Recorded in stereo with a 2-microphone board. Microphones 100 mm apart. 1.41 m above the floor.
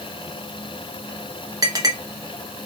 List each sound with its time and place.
1.6 s a clink: 35° right (ahead or behind), 0.9 m